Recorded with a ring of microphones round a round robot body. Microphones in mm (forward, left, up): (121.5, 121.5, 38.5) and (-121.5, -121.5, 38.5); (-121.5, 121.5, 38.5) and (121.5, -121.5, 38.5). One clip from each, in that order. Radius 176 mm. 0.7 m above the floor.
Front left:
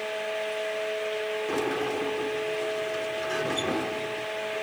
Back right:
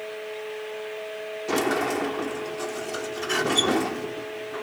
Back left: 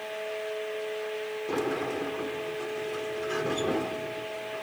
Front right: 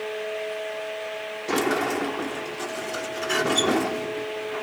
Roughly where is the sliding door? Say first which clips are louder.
Back right 8 dB, front right 7 dB; right.